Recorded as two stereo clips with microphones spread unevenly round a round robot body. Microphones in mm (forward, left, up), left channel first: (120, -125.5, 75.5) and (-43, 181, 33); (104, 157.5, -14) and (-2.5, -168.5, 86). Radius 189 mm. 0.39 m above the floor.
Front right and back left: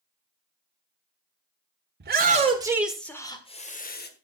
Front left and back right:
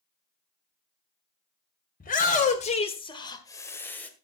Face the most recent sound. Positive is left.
turn(degrees=0)